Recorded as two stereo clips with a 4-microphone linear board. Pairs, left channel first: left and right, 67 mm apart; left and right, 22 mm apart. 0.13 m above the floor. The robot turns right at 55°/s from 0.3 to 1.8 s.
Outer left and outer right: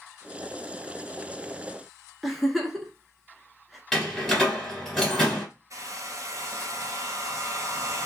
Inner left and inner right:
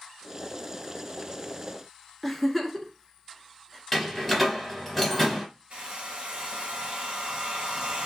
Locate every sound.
2.2 s a giggle: centre (ahead or behind), 0.8 m
3.9 s a door slam: centre (ahead or behind), 1.7 m
5.7 s a hair dryer: 55° right (ahead or behind), 1.3 m